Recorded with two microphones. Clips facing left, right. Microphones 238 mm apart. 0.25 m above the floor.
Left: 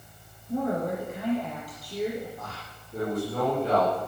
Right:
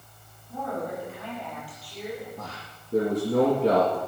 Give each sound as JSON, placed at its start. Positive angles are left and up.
{"t": 0.5, "sound": "a woman speaking", "side_deg": 45, "distance_m": 6.0}
{"t": 2.4, "sound": "a man speaking", "side_deg": -75, "distance_m": 4.5}